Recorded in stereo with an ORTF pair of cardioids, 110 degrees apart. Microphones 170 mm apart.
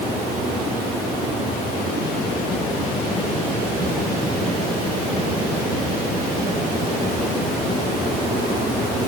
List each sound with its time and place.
Only background noise.